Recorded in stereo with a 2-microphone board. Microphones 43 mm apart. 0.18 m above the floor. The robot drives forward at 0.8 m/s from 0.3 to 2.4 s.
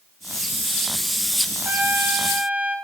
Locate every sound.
1.6 s a trumpet: 55° right (ahead or behind), 0.7 m; by 2.8 s 40° right (ahead or behind), 1.0 m